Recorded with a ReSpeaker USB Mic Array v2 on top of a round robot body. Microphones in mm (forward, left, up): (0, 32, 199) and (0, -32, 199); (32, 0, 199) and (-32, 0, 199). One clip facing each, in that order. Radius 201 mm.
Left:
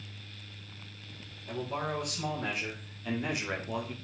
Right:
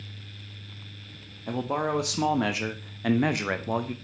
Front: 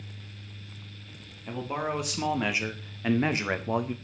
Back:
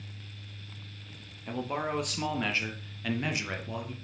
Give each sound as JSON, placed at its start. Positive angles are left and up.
{"t": 1.5, "sound": "a man speaking", "azimuth_deg": -95, "distance_m": 1.8}